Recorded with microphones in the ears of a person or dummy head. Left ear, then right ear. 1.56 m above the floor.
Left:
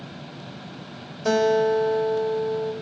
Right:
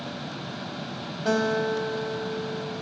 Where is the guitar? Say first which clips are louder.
Left 5 dB; 85° left, 6 m.